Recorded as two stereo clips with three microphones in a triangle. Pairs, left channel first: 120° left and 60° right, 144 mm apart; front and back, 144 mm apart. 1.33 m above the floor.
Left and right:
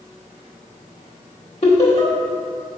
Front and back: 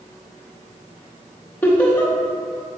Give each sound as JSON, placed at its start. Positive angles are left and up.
{"t": 1.6, "sound": "laughter", "azimuth_deg": 75, "distance_m": 1.9}